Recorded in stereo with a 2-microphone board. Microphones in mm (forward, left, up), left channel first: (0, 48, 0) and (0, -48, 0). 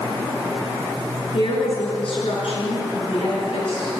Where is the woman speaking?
75° left (ahead or behind), 7.5 m.